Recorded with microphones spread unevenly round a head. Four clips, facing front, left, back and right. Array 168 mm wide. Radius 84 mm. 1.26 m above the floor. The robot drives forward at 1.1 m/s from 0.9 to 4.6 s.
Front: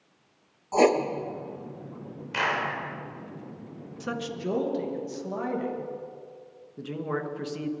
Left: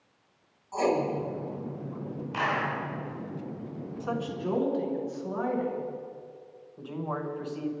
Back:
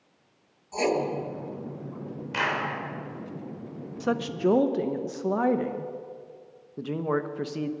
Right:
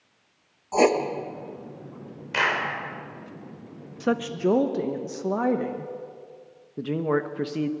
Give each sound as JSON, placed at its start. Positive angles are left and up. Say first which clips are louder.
{"t": 0.7, "sound": "writing", "louder": "right 6 dB, front 5 dB", "azimuth_deg": -50, "distance_m": 1.1}
{"t": 2.3, "sound": "a clap", "louder": "right 3 dB, front 1 dB", "azimuth_deg": -90, "distance_m": 4.0}
{"t": 4.0, "sound": "a woman speaking", "louder": "right 8 dB, back 7 dB", "azimuth_deg": -105, "distance_m": 0.9}
{"t": 6.8, "sound": "a man speaking", "louder": "right 9 dB, back 4 dB", "azimuth_deg": -105, "distance_m": 1.1}